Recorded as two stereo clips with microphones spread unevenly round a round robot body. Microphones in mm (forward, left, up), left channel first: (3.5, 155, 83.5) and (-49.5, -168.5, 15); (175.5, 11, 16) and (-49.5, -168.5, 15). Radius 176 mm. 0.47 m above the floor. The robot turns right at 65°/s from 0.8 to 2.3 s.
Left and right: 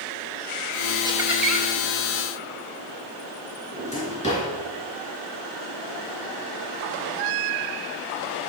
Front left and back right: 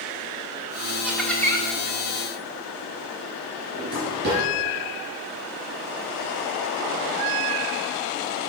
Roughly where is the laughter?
Ahead right.